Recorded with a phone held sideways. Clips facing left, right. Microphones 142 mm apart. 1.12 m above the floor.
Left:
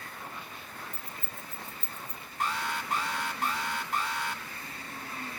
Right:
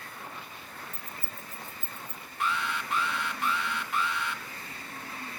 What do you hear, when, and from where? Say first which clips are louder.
0.9 s keys jangling: even; 5° left (ahead or behind), 3 m; by 2.2 s 5° right (ahead or behind), 4.5 m
2.4 s an alarm: right 1 dB; 40° left (ahead or behind), 3 m